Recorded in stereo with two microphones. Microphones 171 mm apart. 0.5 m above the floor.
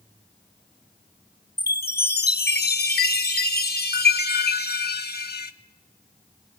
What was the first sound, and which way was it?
A chime, 65° left (ahead or behind).